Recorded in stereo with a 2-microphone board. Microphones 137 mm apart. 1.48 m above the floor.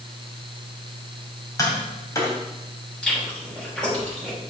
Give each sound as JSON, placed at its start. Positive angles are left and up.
{"t": 1.6, "sound": "tapping", "side_deg": 25, "distance_m": 3.0}
{"t": 3.0, "sound": "chewing", "side_deg": 5, "distance_m": 5.5}